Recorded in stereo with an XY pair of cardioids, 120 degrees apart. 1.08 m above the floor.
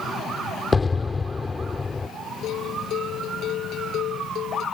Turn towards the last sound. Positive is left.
turn(degrees=65)